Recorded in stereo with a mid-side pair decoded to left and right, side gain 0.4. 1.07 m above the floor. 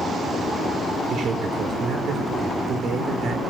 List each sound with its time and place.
1.1 s a man speaking: 60° right, 4.5 m